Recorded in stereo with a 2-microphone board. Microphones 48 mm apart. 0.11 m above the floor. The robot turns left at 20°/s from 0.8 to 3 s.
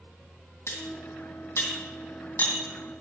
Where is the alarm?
No alarm in this recording.